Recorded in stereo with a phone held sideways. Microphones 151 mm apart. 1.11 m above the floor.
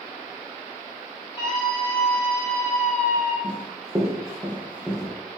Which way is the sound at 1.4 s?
30° left (ahead or behind).